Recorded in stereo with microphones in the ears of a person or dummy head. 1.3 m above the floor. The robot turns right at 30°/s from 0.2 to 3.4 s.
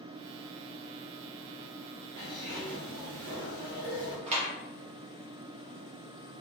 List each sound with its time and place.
2.2 s a zipper: 125° right, 0.9 m; by 4.2 s 85° right, 0.9 m
4.3 s a clap: 40° right (ahead or behind), 1.1 m